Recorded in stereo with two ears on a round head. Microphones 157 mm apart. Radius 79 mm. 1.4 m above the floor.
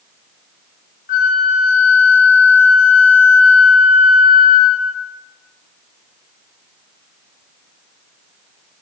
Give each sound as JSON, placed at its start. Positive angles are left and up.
{"t": 1.1, "sound": "a flute", "side_deg": 50, "distance_m": 1.3}